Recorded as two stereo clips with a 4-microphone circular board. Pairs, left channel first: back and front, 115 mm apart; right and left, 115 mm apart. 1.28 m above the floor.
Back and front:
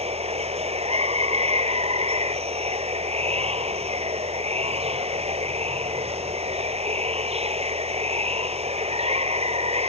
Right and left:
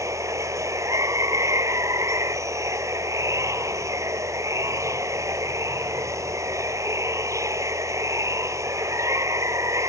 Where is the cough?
No cough in this recording.